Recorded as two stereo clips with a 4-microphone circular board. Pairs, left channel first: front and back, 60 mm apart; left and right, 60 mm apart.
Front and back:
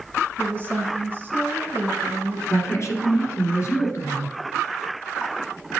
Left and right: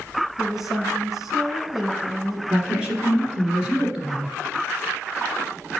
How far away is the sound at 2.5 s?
About 2 m.